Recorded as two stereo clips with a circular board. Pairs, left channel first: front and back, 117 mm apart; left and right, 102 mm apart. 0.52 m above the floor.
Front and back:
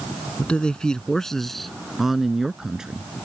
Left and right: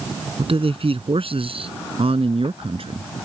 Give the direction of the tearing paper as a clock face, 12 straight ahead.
I don't hear tearing paper.